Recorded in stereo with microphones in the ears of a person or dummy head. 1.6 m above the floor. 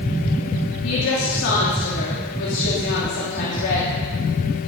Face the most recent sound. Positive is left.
turn(degrees=75)  # may be behind; listen again after turning